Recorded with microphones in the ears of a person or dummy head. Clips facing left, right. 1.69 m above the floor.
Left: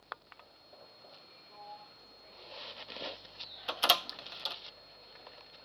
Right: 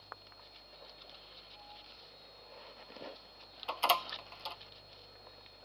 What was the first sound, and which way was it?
A sliding door, 75° left (ahead or behind).